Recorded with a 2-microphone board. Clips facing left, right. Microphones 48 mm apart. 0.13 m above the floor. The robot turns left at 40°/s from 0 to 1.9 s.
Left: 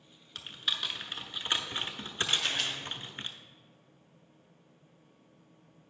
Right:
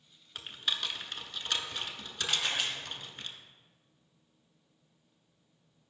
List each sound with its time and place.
0.3 s typing on a keyboard: 5° right (ahead or behind), 0.8 m; by 3.3 s 35° left (ahead or behind), 0.8 m
2.3 s a camera shutter: 5° right (ahead or behind), 1.8 m